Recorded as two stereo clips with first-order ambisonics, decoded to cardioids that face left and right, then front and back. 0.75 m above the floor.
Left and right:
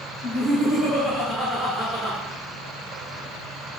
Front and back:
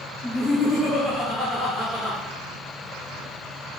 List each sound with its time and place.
0.2 s laughter: 90° left, 1.2 m; by 2.2 s 140° right, 0.8 m